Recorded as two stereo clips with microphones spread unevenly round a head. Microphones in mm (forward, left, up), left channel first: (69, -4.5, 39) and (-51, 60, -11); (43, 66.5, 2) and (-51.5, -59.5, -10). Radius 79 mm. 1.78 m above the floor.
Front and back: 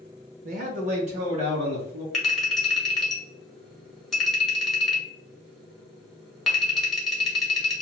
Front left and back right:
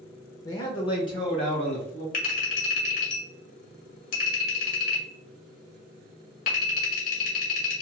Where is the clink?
45° left, 1.3 m.